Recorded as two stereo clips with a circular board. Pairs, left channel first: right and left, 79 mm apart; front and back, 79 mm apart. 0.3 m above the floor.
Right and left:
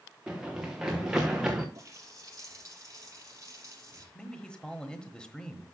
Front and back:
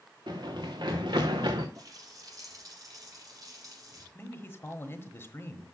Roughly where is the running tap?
Behind left.